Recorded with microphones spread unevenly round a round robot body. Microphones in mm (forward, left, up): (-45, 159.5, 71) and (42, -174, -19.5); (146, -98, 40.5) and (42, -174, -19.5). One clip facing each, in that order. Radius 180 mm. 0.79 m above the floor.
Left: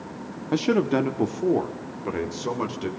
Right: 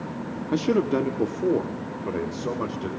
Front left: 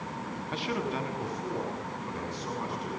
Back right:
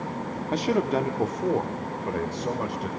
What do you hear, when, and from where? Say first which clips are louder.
0.5 s a man speaking: left 1 dB, back right 9 dB; 160° right, 1.0 m; by 2.9 s straight behind, 3.5 m